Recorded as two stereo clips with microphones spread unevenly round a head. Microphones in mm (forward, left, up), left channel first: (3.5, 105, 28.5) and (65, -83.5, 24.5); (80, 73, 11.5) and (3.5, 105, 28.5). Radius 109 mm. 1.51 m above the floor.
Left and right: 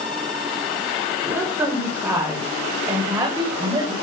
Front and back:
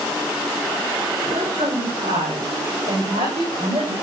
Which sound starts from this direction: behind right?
A woman speaking, at 1.2 s.